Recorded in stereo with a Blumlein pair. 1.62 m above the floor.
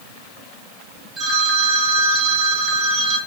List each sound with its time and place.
1.2 s a phone ringing: 15° right, 2.0 m